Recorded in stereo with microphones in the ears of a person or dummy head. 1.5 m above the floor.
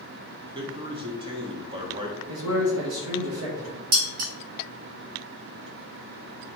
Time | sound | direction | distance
0.5 | a man speaking | 25° right (ahead or behind) | 0.7 m
2.3 | a man speaking | 75° right (ahead or behind) | 1.0 m
3.9 | dishes clattering | 45° right (ahead or behind) | 1.4 m